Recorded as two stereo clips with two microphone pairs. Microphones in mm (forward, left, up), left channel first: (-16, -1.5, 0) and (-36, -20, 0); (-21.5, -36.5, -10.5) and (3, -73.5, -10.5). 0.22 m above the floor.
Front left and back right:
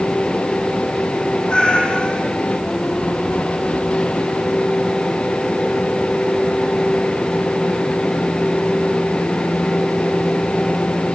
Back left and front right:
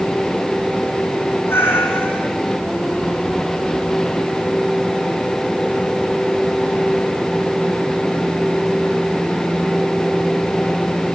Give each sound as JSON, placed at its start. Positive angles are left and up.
{"t": 1.5, "sound": "a cat meowing", "azimuth_deg": 95, "distance_m": 4.0}